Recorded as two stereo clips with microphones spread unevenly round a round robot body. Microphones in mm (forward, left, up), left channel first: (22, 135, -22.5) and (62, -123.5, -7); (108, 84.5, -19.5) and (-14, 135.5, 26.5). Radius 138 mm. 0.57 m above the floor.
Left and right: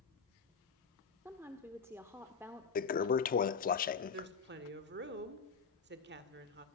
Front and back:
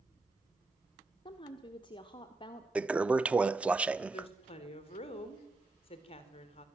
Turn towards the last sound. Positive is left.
turn(degrees=-35)